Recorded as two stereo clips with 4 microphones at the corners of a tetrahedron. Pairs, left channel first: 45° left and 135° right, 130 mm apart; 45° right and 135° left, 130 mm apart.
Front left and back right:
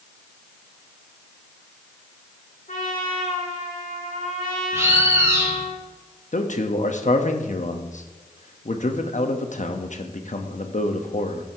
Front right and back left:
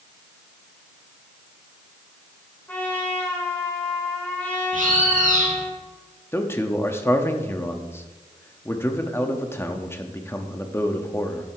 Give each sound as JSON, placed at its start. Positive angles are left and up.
{"t": 2.7, "sound": "a trumpet", "azimuth_deg": 30, "distance_m": 2.5}
{"t": 4.7, "sound": "a bird", "azimuth_deg": 155, "distance_m": 2.0}
{"t": 6.3, "sound": "a man speaking", "azimuth_deg": 25, "distance_m": 1.0}